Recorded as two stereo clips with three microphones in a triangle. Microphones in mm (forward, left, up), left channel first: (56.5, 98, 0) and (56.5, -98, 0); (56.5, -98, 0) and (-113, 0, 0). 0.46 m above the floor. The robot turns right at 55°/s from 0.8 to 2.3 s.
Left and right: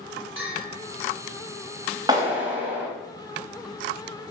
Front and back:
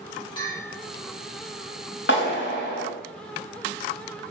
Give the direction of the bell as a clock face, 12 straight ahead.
3 o'clock.